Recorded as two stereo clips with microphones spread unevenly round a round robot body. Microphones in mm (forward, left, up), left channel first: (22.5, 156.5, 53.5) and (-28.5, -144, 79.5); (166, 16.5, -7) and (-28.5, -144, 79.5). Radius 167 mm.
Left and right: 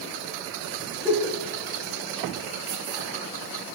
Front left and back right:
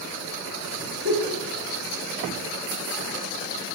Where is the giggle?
175° left, 1.9 m.